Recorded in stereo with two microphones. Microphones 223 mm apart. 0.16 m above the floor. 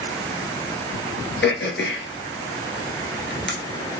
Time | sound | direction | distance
1.4 | throat clearing | 55° left (ahead or behind) | 1.1 m